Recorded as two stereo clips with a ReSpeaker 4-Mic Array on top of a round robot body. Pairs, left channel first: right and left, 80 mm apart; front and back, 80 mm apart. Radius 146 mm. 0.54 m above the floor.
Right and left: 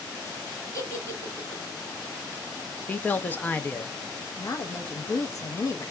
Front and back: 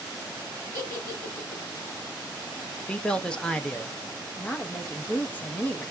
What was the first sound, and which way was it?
A giggle, 55° right.